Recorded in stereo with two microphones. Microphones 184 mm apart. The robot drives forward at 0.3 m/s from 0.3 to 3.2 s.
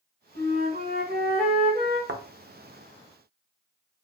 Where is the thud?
70° right (ahead or behind), 0.6 m; by 2.2 s 65° right (ahead or behind), 0.6 m.